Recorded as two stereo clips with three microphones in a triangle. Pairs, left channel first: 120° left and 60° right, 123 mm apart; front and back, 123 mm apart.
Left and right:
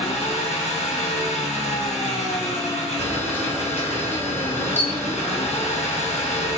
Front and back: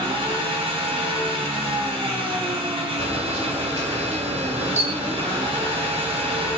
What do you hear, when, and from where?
0.0 s an engine running: 140° left, 3 m
3.0 s a camera shutter: 165° right, 1.9 m